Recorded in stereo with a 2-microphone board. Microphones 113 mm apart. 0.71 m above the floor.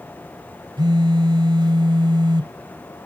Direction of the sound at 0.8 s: 45° right (ahead or behind).